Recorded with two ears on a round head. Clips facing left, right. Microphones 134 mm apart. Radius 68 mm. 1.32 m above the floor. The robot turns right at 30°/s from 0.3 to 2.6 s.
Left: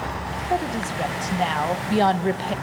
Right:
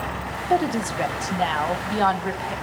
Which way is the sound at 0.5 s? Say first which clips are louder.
Right 4 dB; 25° right.